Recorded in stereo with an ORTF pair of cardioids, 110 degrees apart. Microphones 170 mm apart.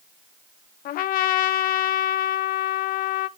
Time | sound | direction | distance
0.8 | a trumpet | 65° left | 0.6 m